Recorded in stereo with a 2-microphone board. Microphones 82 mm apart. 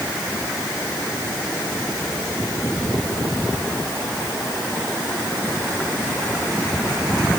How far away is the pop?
I don't hear a pop.